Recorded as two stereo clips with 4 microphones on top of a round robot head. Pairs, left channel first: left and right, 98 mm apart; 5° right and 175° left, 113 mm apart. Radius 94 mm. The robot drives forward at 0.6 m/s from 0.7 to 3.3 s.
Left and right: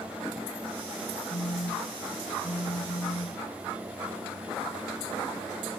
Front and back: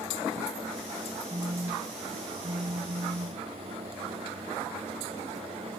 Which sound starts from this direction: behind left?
A phone buzzing, at 1.3 s.